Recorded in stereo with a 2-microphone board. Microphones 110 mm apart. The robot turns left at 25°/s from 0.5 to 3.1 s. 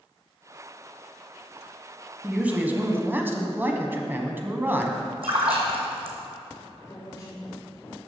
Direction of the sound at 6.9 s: 35° left (ahead or behind).